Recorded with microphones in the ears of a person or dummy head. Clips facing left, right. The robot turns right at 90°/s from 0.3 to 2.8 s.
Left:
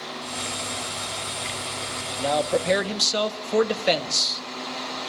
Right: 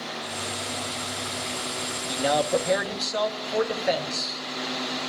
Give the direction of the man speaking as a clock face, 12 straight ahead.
1 o'clock.